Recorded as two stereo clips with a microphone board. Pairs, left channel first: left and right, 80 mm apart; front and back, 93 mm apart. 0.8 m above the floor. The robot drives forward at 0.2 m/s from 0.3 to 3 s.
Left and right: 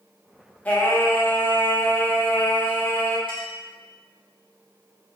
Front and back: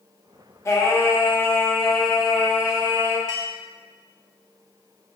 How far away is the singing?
About 0.6 m.